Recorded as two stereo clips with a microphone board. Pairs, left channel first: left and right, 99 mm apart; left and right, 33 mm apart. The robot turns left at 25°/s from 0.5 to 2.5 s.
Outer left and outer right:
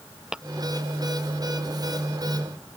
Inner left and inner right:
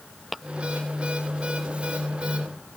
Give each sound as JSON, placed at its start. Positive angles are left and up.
{"t": 0.3, "sound": "tapping", "side_deg": -5}